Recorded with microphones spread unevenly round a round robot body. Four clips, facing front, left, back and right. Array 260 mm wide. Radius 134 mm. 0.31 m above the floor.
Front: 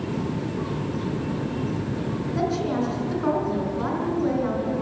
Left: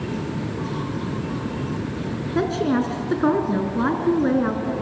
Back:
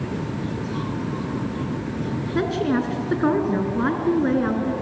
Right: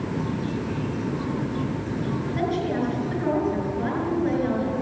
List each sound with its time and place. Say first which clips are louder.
2.4 s a woman speaking: left 6 dB, back 3 dB; 130° left, 4.5 m